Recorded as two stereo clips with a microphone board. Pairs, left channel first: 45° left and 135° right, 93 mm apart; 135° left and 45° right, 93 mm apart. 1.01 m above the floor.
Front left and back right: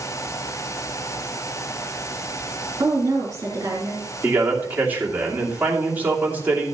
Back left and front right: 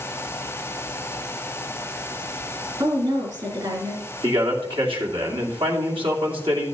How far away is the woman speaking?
About 3 m.